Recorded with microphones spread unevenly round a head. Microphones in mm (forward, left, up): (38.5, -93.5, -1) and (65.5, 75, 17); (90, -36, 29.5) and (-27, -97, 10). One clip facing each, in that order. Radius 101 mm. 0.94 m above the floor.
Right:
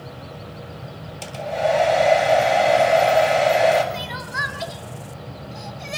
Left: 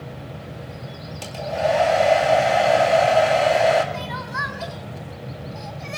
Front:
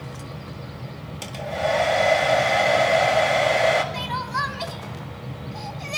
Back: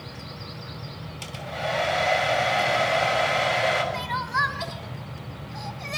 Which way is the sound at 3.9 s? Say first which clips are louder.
Left 1 dB, even; 45° right.